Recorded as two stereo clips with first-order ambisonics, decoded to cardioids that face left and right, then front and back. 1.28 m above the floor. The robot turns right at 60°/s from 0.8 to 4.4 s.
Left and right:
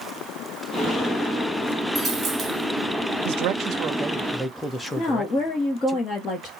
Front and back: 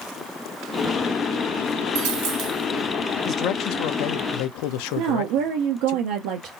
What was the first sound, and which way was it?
A dropped coin, 175° right.